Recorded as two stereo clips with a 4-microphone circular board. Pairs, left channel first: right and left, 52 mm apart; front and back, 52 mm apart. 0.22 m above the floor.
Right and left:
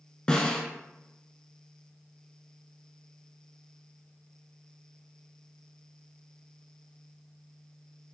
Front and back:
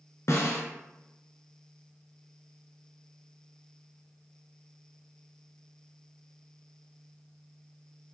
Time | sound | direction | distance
0.3 | a snare drum | 20° right | 1.9 m